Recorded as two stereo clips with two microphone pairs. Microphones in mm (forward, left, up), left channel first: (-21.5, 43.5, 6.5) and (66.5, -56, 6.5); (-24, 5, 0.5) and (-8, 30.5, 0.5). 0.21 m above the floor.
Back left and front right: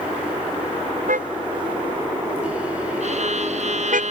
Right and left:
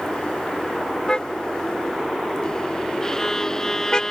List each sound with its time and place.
1.1 s a car horn: 55° right
3.0 s a violin: 55° right